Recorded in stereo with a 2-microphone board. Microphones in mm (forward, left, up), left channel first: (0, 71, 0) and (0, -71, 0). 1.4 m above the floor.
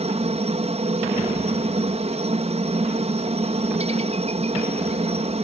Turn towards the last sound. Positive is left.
turn(degrees=-50)  # may be behind; listen again after turning